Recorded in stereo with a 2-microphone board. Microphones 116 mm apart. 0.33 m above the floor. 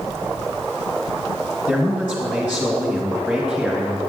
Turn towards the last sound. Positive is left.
turn(degrees=-15)  # may be behind; listen again after turning